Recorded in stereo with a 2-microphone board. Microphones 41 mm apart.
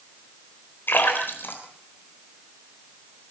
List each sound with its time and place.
0.9 s a splash: 60° left (ahead or behind), 4 m